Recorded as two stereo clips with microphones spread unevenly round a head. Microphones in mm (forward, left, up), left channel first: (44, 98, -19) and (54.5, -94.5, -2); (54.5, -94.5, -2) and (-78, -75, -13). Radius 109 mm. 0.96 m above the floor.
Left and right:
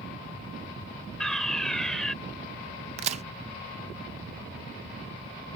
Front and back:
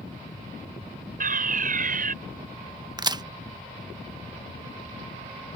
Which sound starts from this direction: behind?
A fire alarm, at 1.2 s.